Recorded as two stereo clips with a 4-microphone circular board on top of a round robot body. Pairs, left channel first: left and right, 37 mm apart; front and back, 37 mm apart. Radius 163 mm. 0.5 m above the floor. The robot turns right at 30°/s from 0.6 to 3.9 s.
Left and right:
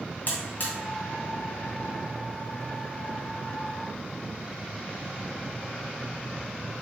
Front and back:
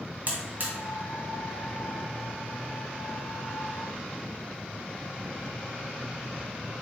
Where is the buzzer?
135° left, 0.6 m; by 0.7 s 140° left, 0.6 m.